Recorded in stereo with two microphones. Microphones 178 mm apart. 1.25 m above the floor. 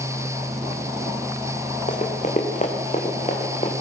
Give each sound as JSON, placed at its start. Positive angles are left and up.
{"t": 1.9, "sound": "running footsteps", "side_deg": 45, "distance_m": 4.5}